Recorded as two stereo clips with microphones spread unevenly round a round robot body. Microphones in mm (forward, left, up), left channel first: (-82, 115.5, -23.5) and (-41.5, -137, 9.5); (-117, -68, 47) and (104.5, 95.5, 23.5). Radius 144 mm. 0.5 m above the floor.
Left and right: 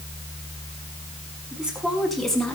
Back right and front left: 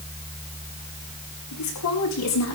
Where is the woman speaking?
170° right, 5.5 m; by 2.6 s 175° right, 5.5 m.